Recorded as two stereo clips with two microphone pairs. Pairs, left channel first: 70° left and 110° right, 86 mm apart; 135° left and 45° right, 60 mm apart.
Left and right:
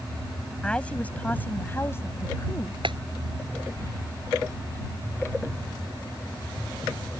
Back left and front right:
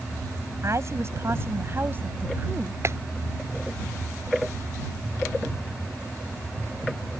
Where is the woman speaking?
5° right; by 2.7 s 20° left.